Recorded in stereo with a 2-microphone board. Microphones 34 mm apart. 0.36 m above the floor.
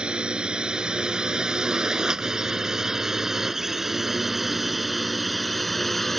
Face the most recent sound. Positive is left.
turn(degrees=5)  # may be behind; listen again after turning